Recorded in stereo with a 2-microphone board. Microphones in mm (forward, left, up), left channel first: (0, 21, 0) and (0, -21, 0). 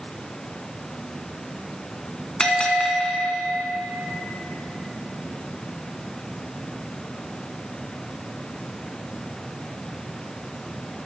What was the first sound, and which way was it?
A bell, 25° left (ahead or behind).